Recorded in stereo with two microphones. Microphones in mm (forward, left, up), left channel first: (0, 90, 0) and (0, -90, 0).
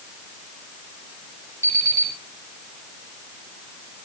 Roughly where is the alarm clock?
Centre.